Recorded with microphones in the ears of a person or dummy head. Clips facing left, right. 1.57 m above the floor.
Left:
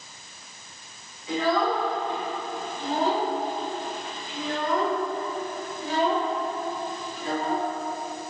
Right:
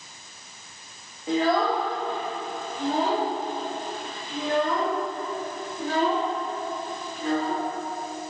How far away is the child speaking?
About 1.8 m.